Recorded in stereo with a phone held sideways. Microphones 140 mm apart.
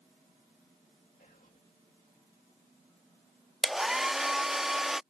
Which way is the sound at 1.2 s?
80° left.